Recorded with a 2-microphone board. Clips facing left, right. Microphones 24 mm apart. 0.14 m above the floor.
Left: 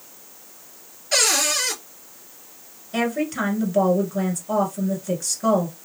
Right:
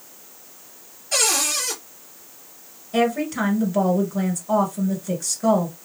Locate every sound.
1.1 s a cupboard door: 25° left (ahead or behind), 2 m
2.9 s a woman speaking: centre (ahead or behind), 1.6 m